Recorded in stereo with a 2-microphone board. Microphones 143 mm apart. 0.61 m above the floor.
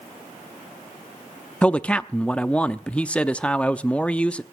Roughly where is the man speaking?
Centre.